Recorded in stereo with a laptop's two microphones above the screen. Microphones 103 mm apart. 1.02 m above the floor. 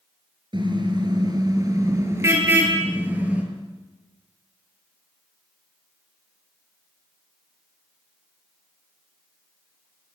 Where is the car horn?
50° right (ahead or behind), 6.5 m; by 3.4 s 15° right (ahead or behind), 7.5 m.